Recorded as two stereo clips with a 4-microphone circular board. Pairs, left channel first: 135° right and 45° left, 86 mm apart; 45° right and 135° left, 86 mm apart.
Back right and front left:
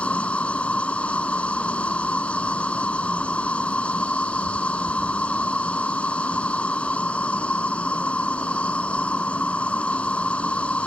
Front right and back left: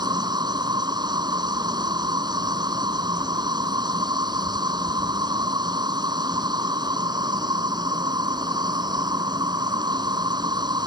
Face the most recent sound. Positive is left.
turn(degrees=155)